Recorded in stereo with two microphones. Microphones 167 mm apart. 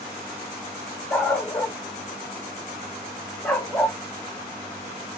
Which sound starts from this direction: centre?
A dog barking, at 1.1 s.